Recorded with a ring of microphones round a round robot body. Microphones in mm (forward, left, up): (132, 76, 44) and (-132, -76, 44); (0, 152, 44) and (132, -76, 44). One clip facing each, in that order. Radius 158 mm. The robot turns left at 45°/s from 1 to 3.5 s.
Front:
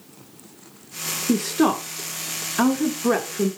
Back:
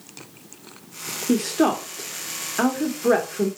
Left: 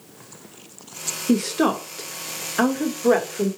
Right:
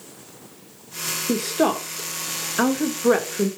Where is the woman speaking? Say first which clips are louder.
Even, left 2 dB; 75° left, 0.8 m; by 3.5 s 25° right, 0.8 m.